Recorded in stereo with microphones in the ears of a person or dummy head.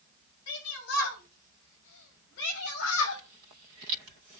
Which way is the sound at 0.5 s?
80° left.